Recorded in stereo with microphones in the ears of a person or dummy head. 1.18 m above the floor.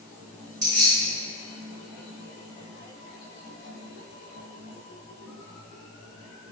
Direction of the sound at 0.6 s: 40° right (ahead or behind).